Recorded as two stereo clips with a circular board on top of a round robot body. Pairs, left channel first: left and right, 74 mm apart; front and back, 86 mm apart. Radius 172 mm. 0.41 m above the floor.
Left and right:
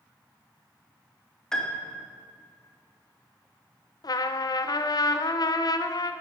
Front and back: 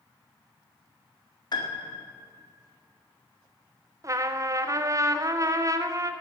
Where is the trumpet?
125° left, 0.6 m.